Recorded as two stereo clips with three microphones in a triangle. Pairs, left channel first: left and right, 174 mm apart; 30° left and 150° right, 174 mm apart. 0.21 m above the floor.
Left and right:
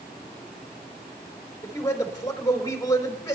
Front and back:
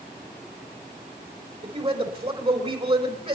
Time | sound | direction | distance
1.6 | a man speaking | 160° left | 3.5 m